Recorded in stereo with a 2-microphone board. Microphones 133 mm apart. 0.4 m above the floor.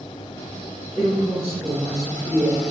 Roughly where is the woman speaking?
Centre.